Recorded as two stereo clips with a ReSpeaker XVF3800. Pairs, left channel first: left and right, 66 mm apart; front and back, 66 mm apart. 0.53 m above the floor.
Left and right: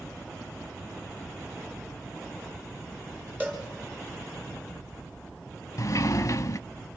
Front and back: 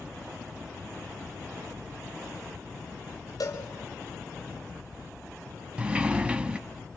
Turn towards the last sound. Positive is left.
turn(degrees=110)